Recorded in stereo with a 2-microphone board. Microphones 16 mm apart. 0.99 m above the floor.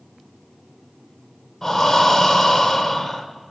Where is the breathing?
25° left (ahead or behind), 0.7 m.